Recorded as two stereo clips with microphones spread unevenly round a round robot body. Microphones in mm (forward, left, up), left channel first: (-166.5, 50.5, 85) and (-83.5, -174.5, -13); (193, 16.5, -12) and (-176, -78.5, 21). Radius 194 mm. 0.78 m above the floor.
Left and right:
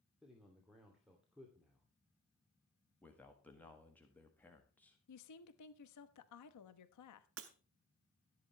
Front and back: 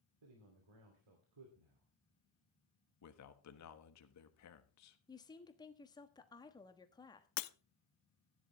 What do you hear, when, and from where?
0.2 s a man speaking: 150° right, 3 m
3.0 s a man speaking: 5° left, 1.3 m
5.1 s a woman speaking: 90° left, 1.1 m
7.4 s breaking glass: 25° right, 0.7 m